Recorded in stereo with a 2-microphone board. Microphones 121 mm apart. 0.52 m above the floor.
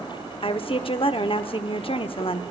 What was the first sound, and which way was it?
A woman speaking, 45° left (ahead or behind).